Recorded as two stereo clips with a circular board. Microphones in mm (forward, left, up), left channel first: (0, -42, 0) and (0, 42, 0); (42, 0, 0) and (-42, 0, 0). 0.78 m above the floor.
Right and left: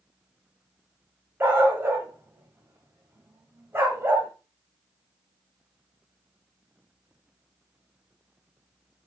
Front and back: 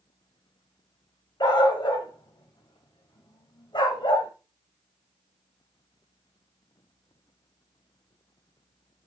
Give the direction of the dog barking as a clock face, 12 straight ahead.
11 o'clock.